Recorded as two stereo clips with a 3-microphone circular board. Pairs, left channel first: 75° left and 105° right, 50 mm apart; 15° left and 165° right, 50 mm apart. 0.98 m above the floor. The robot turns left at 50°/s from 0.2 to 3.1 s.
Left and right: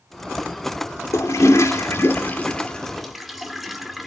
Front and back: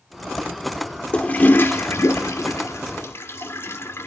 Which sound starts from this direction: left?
A toilet flushing, at 1.1 s.